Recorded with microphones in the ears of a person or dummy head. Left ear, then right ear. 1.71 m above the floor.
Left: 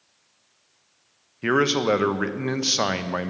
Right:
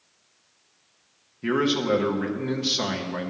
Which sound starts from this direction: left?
A man speaking, at 1.4 s.